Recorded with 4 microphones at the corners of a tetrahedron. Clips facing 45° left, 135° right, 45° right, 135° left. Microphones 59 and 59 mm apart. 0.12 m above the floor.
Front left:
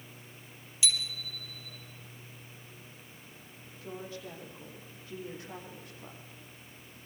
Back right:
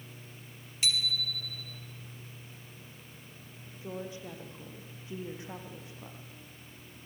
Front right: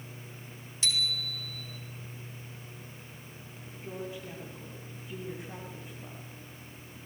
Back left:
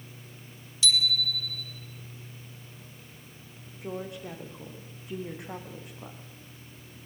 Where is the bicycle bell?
95° right, 3 m.